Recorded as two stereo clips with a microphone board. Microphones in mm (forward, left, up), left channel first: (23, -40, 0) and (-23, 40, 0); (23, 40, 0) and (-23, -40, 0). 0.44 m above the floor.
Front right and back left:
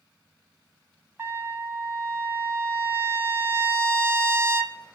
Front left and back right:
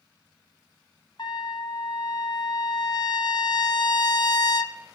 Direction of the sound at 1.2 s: 65° left.